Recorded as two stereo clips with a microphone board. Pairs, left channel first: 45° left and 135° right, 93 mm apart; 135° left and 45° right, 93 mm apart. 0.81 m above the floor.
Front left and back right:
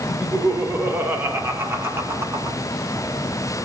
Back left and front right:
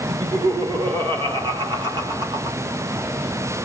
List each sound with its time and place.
0.1 s laughter: 65° right, 3.5 m; by 2.6 s 80° right, 1.8 m